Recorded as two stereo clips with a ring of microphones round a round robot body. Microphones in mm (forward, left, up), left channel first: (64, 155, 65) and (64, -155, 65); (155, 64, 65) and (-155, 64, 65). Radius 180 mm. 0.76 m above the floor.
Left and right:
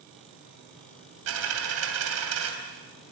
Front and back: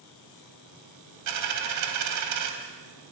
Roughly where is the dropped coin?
Behind right.